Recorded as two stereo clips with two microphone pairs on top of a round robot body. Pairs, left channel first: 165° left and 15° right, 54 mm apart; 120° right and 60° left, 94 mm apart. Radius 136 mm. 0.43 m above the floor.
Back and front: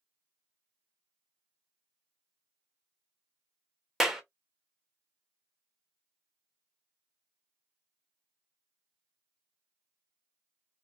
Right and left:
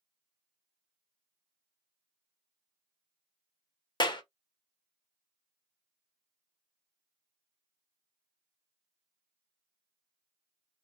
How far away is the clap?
About 1.1 m.